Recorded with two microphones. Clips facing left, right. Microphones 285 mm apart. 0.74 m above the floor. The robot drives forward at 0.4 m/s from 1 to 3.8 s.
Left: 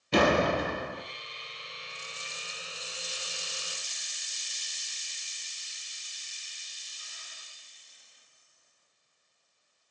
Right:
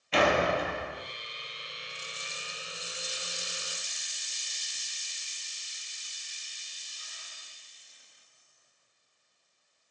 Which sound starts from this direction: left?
A door slam, at 0.1 s.